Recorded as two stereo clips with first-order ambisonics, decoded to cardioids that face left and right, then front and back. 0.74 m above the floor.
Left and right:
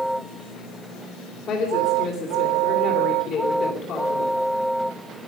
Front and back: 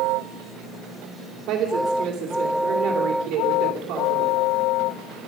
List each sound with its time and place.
1.5 s a woman speaking: 145° left, 2.5 m